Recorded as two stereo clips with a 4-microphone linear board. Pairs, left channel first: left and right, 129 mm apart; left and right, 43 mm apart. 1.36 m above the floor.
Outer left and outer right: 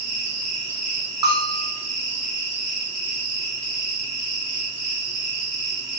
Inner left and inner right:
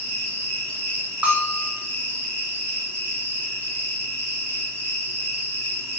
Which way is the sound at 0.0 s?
80° right.